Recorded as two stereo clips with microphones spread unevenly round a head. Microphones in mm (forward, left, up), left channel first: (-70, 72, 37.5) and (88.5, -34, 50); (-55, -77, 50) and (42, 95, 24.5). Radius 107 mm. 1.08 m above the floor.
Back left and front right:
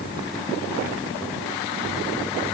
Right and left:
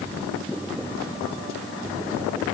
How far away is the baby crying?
I don't hear a baby crying.